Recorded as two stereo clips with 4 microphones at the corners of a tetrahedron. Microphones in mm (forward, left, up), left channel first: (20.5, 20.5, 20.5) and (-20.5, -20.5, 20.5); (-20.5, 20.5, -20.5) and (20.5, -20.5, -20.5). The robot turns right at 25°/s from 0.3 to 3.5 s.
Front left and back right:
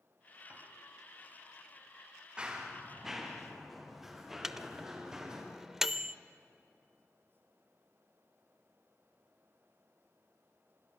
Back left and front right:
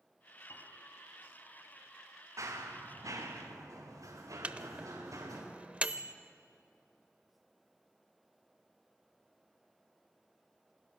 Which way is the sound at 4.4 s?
65° right.